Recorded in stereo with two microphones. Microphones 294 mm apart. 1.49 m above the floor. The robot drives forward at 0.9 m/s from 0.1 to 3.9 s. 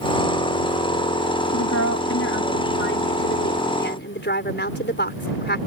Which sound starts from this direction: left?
A woman speaking, at 1.5 s.